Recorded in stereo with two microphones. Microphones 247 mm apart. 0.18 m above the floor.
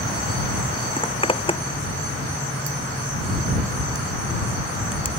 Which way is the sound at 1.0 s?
20° left (ahead or behind).